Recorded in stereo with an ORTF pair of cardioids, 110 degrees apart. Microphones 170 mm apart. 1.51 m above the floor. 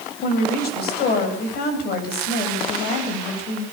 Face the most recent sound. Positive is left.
turn(degrees=70)